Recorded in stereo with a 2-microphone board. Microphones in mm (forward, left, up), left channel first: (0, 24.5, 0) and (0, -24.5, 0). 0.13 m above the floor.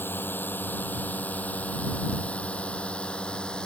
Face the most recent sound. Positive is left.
turn(degrees=15)  # may be behind; listen again after turning